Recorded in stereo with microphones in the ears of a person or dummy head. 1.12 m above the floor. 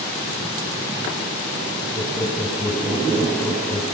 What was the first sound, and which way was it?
Laughter, centre (ahead or behind).